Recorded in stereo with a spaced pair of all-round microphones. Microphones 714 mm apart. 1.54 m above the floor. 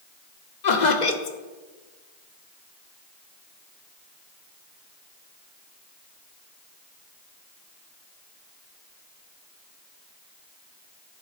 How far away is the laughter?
About 1.1 m.